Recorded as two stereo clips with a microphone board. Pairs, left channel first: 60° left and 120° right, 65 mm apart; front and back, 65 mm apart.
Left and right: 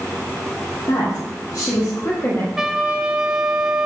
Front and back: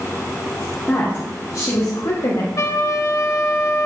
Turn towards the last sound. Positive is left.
turn(degrees=-40)